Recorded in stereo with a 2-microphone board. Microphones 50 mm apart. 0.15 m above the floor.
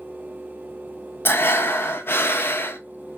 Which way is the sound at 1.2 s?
45° left (ahead or behind).